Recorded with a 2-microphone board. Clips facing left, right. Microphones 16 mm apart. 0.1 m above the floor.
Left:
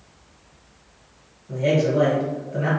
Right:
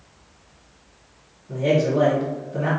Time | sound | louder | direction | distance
1.5 | a man speaking | even | 35° left (ahead or behind) | 1.9 m